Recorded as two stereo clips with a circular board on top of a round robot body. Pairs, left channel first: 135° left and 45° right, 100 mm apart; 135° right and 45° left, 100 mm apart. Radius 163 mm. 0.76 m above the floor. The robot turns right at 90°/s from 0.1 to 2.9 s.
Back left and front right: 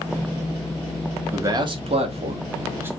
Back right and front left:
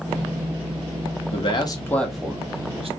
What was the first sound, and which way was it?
A man speaking, 115° right.